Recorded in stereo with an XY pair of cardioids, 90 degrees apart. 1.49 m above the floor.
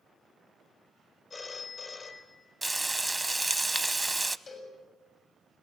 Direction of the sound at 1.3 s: 45° left.